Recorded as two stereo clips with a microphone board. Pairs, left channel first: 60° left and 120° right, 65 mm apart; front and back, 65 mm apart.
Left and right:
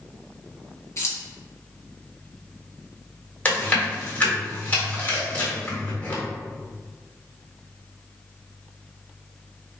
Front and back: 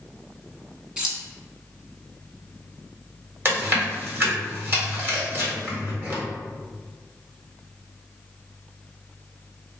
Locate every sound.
1.0 s keys jangling: 105° left, 1.2 m
3.5 s chewing: 125° left, 1.5 m